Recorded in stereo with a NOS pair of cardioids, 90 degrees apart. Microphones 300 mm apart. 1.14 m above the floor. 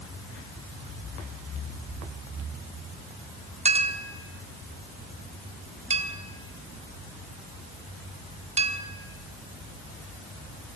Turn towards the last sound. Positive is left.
turn(degrees=-20)